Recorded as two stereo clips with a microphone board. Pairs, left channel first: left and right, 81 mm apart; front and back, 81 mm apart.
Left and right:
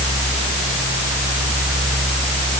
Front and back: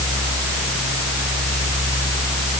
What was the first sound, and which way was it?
Only background noise.